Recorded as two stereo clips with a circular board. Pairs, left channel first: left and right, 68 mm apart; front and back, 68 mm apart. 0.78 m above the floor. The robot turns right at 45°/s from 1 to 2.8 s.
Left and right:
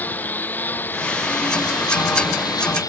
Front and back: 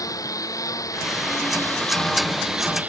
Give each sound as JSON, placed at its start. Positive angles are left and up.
{"t": 0.0, "sound": "a lawn mower", "azimuth_deg": 25}